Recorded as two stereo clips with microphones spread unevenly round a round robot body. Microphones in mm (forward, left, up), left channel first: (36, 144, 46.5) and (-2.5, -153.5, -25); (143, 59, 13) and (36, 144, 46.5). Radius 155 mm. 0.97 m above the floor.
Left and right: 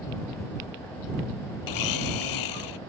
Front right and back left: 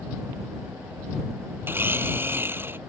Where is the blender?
70° left.